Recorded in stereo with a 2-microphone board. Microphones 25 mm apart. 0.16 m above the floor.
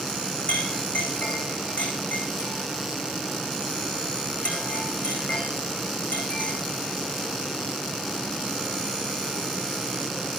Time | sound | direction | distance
0.5 | a clink | 65° left (ahead or behind) | 9 m